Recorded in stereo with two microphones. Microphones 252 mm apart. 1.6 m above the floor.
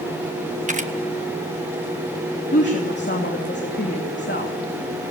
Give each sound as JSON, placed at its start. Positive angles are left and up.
{"t": 0.7, "sound": "a camera shutter", "side_deg": -30, "distance_m": 1.5}
{"t": 2.5, "sound": "a woman speaking", "side_deg": 45, "distance_m": 3.0}